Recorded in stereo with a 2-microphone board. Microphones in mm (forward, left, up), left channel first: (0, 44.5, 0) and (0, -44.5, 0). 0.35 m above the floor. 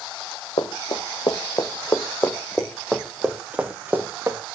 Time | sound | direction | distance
0.6 | running footsteps | 65° left (ahead or behind) | 2.5 m